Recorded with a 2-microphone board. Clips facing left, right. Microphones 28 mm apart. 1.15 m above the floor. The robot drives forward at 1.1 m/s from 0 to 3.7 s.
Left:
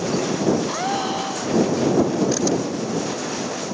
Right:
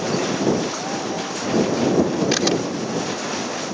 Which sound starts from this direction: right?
A camera shutter, at 2.3 s.